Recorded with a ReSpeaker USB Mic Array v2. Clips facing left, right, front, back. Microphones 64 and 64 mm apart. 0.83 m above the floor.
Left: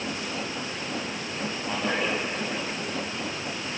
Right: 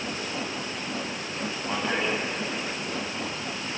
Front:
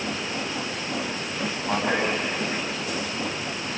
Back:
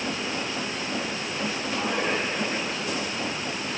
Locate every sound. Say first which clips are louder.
1.7 s a man speaking: even, front 4 dB; straight ahead, 7 m